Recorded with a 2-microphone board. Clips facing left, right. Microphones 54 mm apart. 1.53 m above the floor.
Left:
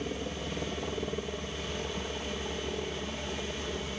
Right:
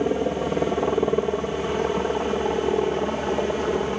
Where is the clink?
No clink in this recording.